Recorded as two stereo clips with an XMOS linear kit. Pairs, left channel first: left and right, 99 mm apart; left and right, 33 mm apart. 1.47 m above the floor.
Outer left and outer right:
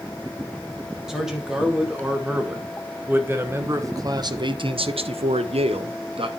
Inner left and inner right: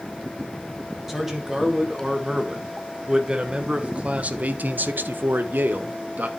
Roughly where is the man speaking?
Centre.